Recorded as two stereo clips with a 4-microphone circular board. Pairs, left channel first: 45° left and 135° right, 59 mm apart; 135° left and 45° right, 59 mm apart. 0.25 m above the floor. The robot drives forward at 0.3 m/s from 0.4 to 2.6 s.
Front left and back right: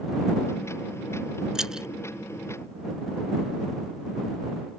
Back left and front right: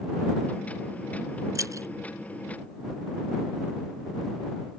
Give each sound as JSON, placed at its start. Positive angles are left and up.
{"t": 1.6, "sound": "keys jangling", "azimuth_deg": -55}